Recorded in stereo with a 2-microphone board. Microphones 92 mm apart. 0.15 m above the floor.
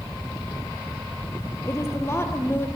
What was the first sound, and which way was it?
A woman speaking, 30° left (ahead or behind).